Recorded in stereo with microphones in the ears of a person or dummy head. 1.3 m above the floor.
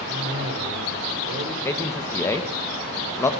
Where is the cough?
60° right (ahead or behind), 4 m.